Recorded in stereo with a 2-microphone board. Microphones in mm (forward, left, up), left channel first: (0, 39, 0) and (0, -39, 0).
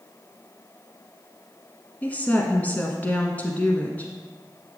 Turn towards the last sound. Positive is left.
turn(degrees=20)  # may be behind; listen again after turning